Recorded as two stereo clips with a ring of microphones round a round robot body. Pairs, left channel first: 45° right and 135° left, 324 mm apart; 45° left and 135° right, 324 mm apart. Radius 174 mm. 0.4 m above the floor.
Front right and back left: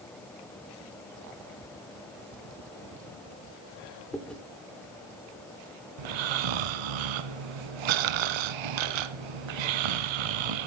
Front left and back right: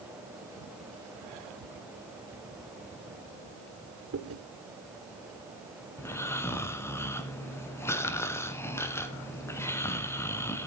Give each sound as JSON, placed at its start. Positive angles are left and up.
{"t": 4.1, "sound": "chewing", "azimuth_deg": -130, "distance_m": 1.7}
{"t": 6.0, "sound": "snoring", "azimuth_deg": 130, "distance_m": 0.8}